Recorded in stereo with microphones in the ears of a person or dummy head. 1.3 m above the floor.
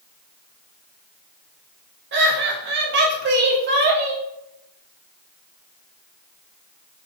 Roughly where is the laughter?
Right.